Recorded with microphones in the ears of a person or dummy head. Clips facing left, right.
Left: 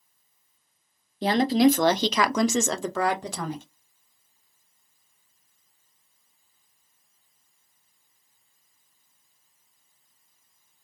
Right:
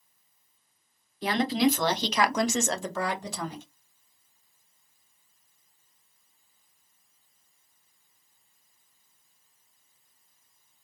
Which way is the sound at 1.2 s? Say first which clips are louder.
Left 5 dB; 25° left (ahead or behind).